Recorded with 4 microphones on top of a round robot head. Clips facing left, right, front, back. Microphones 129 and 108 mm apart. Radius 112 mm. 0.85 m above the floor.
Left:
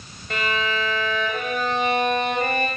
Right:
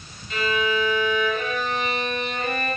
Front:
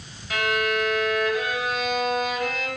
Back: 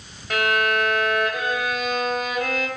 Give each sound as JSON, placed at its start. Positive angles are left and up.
{"t": 0.3, "sound": "a violin", "azimuth_deg": 140, "distance_m": 5.5}